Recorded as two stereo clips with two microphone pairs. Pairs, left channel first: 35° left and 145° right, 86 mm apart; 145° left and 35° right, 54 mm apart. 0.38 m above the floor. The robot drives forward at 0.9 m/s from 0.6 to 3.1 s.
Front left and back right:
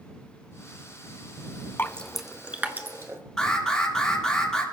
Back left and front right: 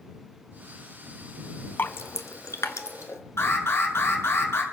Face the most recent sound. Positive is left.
turn(degrees=120)